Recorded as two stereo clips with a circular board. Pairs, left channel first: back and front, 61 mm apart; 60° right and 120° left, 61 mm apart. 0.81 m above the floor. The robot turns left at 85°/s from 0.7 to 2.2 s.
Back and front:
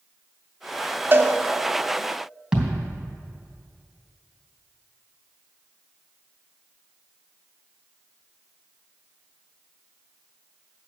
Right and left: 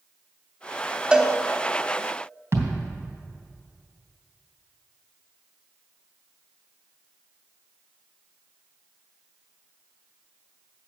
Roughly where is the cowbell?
Ahead left.